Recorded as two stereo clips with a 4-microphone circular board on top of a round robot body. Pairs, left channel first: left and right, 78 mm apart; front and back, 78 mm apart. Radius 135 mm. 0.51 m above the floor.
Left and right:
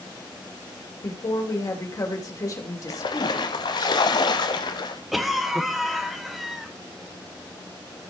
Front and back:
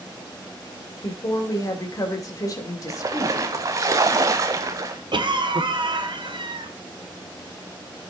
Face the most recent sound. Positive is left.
turn(degrees=180)